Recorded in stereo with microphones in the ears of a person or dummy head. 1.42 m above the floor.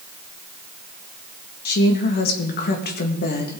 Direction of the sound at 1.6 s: 45° left (ahead or behind).